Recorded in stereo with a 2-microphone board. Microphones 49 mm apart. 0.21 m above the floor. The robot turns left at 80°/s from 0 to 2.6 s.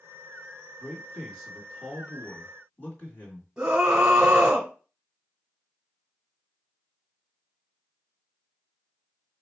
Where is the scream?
10° right (ahead or behind), 1.3 m.